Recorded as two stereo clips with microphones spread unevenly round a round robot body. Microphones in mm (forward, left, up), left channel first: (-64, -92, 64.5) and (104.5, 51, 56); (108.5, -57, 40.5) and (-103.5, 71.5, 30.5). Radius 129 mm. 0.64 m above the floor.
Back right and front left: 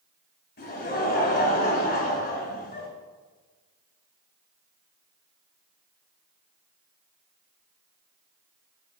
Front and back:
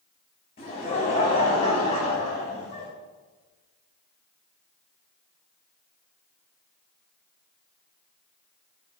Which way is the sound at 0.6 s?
95° right.